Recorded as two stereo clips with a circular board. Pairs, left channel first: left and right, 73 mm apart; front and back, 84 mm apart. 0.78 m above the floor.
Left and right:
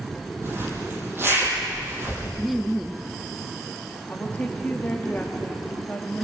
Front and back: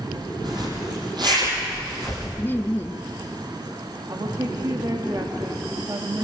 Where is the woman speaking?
145° left, 1.2 m.